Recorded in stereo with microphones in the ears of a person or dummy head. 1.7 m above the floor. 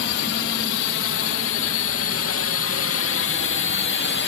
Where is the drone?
70° left (ahead or behind); by 4.3 s 55° left (ahead or behind).